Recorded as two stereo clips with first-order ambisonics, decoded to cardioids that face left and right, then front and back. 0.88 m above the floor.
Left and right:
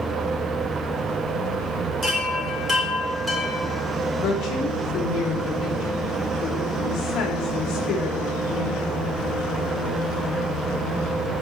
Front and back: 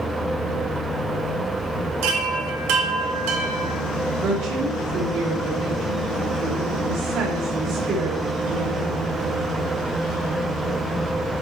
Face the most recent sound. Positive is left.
turn(degrees=145)